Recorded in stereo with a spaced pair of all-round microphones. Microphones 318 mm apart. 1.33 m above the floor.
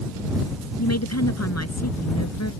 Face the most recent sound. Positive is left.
turn(degrees=50)  # may be behind; listen again after turning